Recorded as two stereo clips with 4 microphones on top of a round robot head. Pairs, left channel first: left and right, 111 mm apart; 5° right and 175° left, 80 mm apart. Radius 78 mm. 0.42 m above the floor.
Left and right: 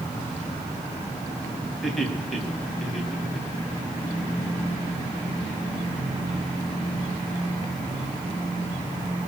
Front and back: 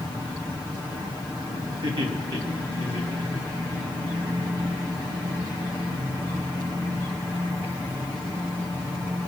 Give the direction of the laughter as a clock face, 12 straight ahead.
6 o'clock.